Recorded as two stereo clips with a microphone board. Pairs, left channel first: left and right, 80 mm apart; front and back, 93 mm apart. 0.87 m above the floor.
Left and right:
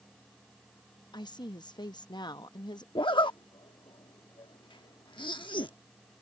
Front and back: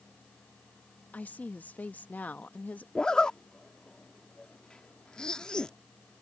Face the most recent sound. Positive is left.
turn(degrees=80)